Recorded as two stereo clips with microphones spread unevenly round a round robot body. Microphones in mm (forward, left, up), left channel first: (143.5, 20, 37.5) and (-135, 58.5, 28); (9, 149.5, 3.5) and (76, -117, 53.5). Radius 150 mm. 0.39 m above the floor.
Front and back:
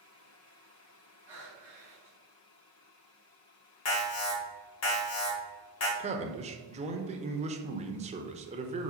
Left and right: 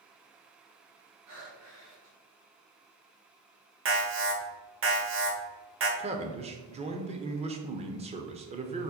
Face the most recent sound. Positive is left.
turn(degrees=-145)